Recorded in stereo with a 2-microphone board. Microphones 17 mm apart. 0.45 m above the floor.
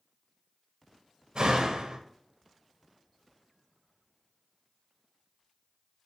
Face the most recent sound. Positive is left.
turn(degrees=-55)  # may be behind; listen again after turning